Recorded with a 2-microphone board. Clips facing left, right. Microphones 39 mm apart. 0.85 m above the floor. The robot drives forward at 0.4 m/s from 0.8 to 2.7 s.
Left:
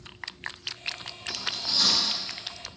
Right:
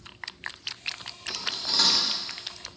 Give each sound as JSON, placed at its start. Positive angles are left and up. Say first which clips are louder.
{"t": 1.3, "sound": "cutlery clinking", "louder": "even", "side_deg": -60, "distance_m": 0.7}